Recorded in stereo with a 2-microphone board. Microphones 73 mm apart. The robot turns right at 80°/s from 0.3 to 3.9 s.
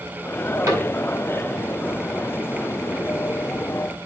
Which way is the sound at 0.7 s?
40° right (ahead or behind).